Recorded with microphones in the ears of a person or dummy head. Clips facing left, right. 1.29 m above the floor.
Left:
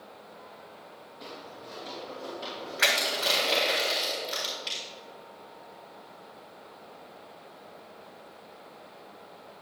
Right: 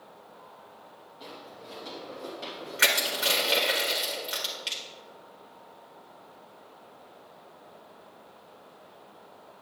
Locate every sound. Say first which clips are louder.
1.2 s footsteps: left 1 dB; 5° right (ahead or behind), 2.5 m; by 3.8 s 30° right (ahead or behind), 4 m
2.8 s crushing: even; 35° right (ahead or behind), 1.8 m